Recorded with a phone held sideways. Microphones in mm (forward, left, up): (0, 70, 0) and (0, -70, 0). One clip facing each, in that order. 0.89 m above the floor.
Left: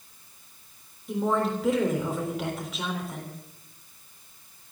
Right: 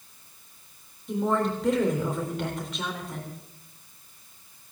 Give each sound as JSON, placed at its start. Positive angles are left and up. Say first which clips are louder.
{"t": 1.1, "sound": "a woman speaking", "louder": "even", "side_deg": 5, "distance_m": 3.5}